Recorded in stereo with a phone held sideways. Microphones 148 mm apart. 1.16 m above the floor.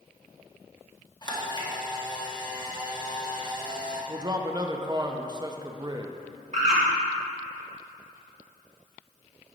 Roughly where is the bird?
Right.